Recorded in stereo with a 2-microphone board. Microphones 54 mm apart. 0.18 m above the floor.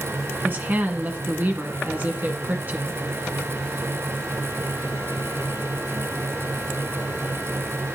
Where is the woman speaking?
40° right (ahead or behind), 1.7 m.